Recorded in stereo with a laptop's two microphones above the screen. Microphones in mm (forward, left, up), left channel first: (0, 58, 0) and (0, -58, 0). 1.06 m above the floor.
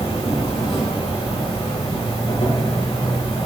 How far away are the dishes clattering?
I don't hear dishes clattering.